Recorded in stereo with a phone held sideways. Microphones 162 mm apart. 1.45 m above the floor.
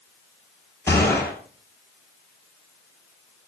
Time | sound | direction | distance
0.9 | a gunshot | 15° left (ahead or behind) | 10 m